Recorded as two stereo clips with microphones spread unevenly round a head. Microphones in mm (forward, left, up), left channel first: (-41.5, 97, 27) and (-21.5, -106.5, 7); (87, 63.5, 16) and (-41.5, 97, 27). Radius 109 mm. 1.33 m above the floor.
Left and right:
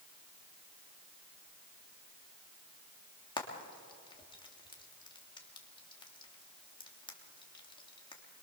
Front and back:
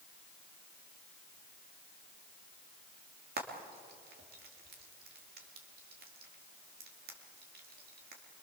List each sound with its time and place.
3.4 s frying: 165° left, 3 m